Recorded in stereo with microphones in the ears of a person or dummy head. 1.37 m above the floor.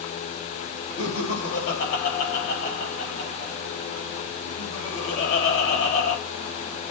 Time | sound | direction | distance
1.0 | laughter | 70° left (ahead or behind) | 3.5 m